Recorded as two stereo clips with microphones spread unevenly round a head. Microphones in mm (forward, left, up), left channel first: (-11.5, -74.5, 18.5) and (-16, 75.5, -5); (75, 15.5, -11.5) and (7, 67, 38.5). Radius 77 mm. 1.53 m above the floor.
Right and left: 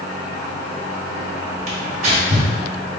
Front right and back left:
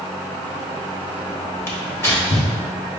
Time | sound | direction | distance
1.7 | tearing paper | 45° left | 1.3 m